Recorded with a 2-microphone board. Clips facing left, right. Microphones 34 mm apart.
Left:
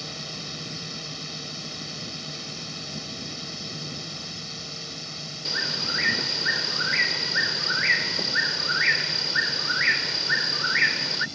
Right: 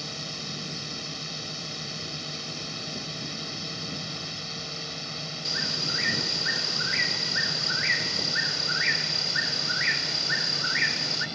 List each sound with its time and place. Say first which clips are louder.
0.0 s a drone: even; centre (ahead or behind); by 11.4 s 25° right (ahead or behind)
5.5 s a bird: left 3 dB; 20° left (ahead or behind)